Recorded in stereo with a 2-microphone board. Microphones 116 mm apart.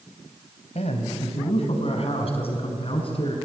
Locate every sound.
0.8 s a man speaking: 70° left (ahead or behind), 3.5 m; by 3.4 s 50° left (ahead or behind), 6.5 m